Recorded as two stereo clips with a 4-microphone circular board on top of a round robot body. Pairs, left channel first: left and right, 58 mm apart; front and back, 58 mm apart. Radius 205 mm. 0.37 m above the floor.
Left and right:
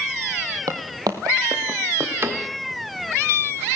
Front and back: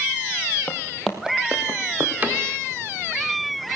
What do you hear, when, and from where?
0.7 s footsteps: 65° right, 0.7 m; by 2.1 s 135° right, 1.1 m
2.2 s a cupboard door: 125° right, 1.6 m